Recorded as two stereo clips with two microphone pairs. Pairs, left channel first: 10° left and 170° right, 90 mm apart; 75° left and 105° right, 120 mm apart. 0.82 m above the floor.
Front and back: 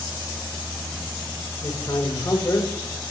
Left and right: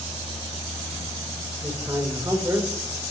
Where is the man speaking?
30° right, 4 m.